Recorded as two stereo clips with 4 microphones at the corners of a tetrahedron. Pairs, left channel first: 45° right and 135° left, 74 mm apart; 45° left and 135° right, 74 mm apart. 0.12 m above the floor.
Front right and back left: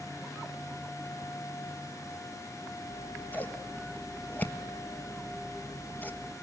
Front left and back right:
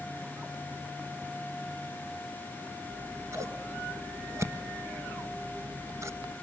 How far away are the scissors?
About 1.5 m.